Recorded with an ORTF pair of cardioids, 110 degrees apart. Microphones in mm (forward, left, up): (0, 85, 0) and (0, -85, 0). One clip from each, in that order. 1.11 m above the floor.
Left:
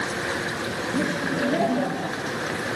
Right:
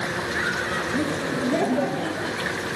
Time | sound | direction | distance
0.9 | laughter | 5° left | 1.3 m